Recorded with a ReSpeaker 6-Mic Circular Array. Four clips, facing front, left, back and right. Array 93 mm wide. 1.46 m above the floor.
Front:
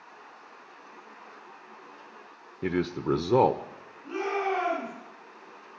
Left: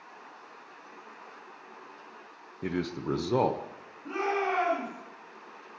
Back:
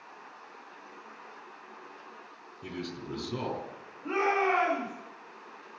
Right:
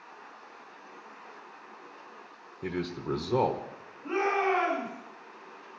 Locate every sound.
2.6 s a man speaking: 20° left, 0.9 m
4.0 s a shout: 160° right, 5.5 m